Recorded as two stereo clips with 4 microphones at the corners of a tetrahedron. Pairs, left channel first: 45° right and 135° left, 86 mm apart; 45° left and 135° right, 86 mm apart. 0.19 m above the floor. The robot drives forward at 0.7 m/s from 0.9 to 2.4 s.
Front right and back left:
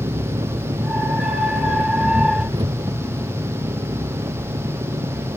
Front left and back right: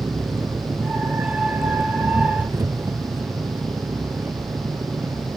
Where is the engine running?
165° left; by 5.4 s 170° left.